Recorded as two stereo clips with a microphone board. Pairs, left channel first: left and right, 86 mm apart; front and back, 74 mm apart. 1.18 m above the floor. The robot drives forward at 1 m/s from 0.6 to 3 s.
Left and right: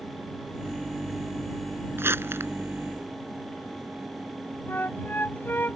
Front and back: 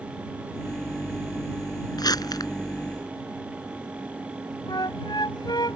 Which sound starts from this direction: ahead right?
Crumpling, at 2.0 s.